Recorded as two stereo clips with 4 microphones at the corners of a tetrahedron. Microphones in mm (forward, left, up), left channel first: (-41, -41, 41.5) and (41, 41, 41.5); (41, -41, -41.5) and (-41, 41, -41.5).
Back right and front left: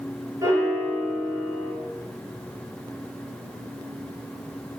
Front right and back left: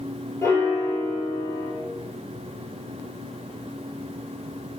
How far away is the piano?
About 1.0 m.